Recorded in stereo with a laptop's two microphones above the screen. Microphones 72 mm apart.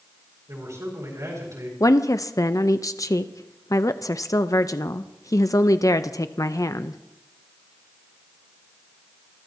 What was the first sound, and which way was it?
A man speaking, 50° right (ahead or behind).